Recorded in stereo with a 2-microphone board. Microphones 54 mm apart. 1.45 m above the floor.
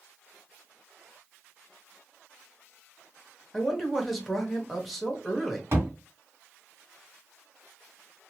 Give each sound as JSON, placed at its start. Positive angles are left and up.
{"t": 3.5, "sound": "a man speaking", "side_deg": 0, "distance_m": 0.9}
{"t": 5.7, "sound": "a thud", "side_deg": -50, "distance_m": 2.0}